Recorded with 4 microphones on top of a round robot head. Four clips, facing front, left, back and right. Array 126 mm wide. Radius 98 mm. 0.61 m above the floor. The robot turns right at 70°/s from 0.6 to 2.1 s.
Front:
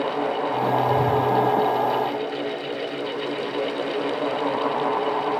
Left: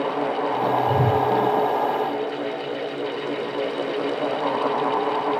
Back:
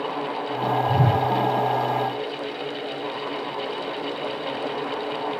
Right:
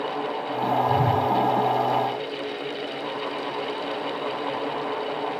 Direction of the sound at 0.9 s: 135° left.